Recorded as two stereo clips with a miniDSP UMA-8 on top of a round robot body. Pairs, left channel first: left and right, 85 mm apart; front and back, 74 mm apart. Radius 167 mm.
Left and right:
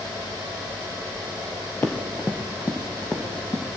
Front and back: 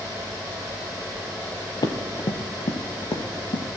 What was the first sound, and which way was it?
Running footsteps, 25° left.